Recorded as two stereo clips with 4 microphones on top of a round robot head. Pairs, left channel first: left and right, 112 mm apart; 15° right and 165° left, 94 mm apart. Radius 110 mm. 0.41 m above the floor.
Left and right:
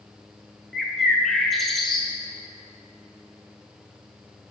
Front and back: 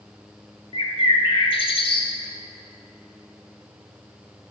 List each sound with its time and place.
0.7 s a bird: straight ahead, 1.7 m